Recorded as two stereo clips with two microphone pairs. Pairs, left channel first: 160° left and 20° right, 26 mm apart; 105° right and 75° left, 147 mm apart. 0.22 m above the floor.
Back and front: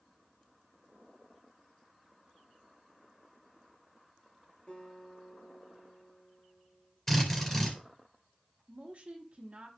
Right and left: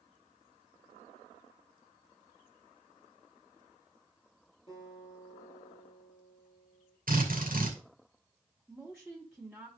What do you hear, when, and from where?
4.7 s a guitar: 160° right, 6.5 m
7.1 s a drill: 80° left, 2.5 m
8.7 s a woman speaking: 10° right, 1.4 m